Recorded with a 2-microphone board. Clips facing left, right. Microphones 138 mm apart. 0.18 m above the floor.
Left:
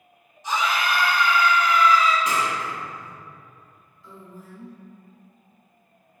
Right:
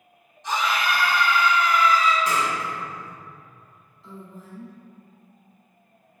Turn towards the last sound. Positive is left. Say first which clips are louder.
# right 2 dB
turn(degrees=-30)  # may be behind; listen again after turning